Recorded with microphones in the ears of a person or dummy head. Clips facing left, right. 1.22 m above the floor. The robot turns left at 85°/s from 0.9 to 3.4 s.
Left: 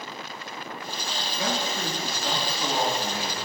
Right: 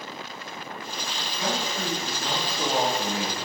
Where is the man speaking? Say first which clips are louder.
Even; 80° left, 2.5 m; by 3.4 s 90° right, 2.5 m.